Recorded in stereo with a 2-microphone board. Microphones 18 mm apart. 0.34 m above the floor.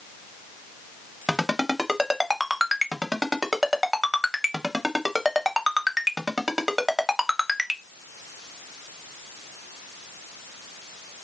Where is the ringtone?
10° right (ahead or behind), 1.2 m.